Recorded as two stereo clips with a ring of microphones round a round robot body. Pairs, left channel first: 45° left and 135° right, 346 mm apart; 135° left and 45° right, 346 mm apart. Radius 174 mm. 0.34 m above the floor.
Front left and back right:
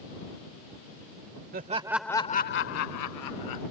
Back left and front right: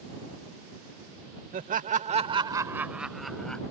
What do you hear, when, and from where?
1.5 s laughter: 95° right; by 3.6 s 50° left